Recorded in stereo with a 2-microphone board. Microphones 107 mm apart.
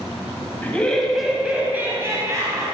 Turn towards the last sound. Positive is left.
turn(degrees=-35)  # may be behind; listen again after turning